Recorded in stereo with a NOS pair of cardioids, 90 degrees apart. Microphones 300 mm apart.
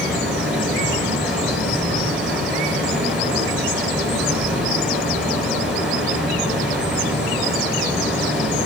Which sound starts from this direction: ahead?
Running water, at 0.0 s.